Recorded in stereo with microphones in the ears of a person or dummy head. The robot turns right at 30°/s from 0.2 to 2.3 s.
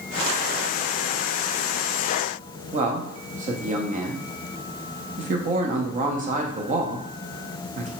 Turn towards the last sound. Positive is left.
turn(degrees=-40)  # may be behind; listen again after turning